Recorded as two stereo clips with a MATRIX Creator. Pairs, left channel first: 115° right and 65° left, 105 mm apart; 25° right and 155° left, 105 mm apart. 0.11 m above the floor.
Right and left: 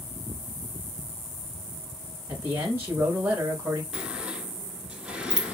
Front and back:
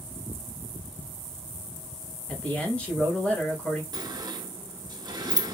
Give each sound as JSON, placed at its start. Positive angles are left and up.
{"t": 2.3, "sound": "a man speaking", "azimuth_deg": 40, "distance_m": 1.1}
{"t": 3.9, "sound": "a sliding door", "azimuth_deg": 145, "distance_m": 0.8}